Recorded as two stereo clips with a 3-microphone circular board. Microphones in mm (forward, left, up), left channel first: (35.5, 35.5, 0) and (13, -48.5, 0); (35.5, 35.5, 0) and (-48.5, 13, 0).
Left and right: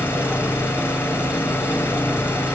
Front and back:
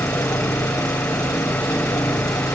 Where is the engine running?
30° right, 4 m.